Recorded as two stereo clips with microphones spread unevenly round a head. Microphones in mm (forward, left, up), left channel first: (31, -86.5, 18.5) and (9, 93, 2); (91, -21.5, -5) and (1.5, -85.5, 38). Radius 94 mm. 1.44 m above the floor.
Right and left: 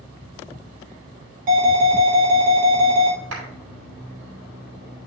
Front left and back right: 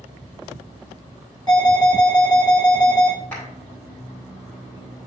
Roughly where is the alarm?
Behind left.